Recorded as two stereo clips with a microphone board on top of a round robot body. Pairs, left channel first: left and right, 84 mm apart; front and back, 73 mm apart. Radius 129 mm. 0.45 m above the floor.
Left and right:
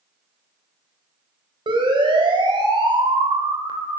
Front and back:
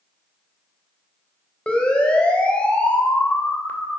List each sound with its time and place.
1.7 s a siren: 75° right, 4 m; by 4.0 s 70° right, 3 m